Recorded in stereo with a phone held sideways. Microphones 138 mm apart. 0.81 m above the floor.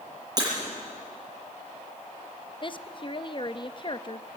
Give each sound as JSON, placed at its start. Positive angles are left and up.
{"t": 0.4, "sound": "breaking glass", "side_deg": -30, "distance_m": 7.5}
{"t": 2.6, "sound": "a woman speaking", "side_deg": 35, "distance_m": 0.7}